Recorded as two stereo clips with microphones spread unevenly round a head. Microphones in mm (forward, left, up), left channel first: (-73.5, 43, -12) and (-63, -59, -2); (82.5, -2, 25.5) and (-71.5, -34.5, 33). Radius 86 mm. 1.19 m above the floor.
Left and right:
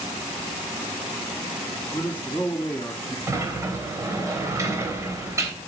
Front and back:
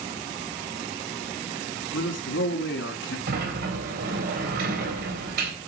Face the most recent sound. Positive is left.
turn(degrees=-140)